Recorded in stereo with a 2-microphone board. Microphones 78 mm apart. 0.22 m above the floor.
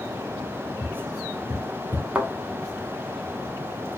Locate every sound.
0.8 s tapping: 45° left (ahead or behind), 2.5 m
2.1 s a thud: 15° right (ahead or behind), 1.0 m